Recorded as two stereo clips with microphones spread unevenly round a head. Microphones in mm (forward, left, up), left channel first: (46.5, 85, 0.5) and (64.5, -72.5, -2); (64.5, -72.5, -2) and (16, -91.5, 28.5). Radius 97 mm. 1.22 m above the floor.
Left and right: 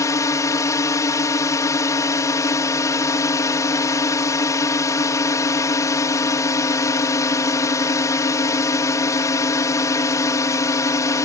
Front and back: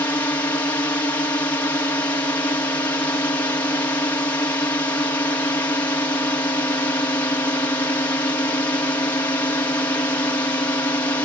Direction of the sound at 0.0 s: 30° left.